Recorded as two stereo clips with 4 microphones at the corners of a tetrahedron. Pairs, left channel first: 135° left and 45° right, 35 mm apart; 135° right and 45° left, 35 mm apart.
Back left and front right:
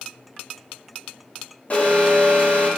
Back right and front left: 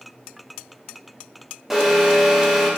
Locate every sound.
1.7 s an alarm: 125° left, 2 m